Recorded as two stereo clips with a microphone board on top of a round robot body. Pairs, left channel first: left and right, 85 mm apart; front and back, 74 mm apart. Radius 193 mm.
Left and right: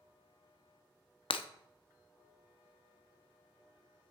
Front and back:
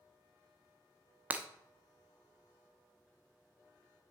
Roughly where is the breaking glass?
Left.